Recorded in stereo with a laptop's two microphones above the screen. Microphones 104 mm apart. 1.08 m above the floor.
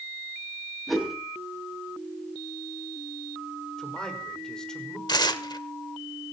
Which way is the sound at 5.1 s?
45° left (ahead or behind).